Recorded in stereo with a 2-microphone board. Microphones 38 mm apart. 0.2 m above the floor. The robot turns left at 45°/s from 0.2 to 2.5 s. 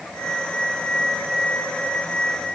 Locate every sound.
Only background noise.